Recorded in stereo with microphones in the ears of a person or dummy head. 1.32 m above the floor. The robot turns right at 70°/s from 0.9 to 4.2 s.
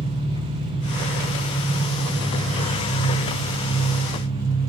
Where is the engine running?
35° right, 5.5 m; by 4.7 s 160° right, 5.5 m.